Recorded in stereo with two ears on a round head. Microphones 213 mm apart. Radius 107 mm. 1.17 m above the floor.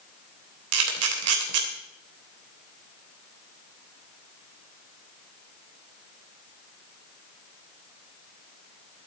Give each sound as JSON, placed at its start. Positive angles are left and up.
{"t": 0.7, "sound": "a camera shutter", "side_deg": -70, "distance_m": 3.0}